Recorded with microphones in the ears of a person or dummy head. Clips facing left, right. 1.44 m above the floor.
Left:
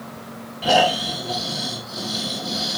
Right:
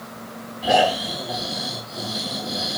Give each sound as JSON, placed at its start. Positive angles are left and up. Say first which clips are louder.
{"t": 0.6, "sound": "snoring", "louder": "even", "side_deg": 80, "distance_m": 8.0}